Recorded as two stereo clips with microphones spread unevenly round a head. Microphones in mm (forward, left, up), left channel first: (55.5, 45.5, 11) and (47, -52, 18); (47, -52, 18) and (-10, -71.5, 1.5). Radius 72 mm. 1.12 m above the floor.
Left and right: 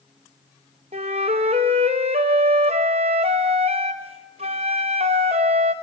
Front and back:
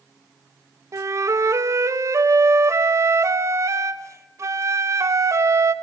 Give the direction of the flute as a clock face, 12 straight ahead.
5 o'clock.